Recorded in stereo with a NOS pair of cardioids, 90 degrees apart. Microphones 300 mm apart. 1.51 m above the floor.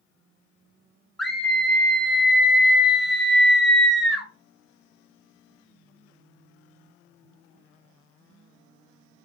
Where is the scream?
Straight ahead, 0.8 m.